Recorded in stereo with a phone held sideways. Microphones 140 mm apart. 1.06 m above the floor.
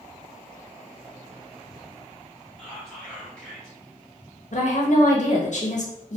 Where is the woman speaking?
60° left (ahead or behind), 0.7 m.